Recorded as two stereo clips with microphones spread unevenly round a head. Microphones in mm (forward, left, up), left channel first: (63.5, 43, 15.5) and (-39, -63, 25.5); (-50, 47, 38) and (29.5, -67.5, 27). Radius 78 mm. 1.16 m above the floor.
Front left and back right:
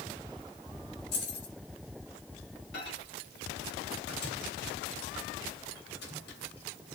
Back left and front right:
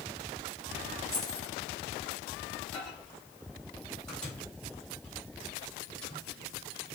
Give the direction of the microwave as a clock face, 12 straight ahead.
11 o'clock.